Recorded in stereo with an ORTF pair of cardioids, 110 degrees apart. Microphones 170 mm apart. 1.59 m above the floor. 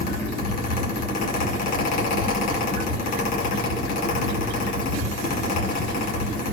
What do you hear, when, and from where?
0.0 s a fan: 60° left, 2 m